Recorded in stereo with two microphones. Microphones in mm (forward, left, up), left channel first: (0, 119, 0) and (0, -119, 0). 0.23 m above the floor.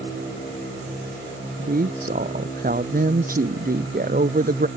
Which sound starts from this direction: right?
A woman speaking, at 1.6 s.